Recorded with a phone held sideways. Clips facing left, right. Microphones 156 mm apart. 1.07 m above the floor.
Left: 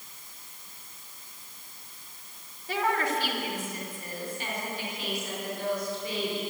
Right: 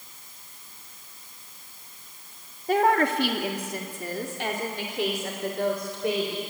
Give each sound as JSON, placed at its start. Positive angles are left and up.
{"t": 2.7, "sound": "a woman speaking", "side_deg": -50, "distance_m": 1.7}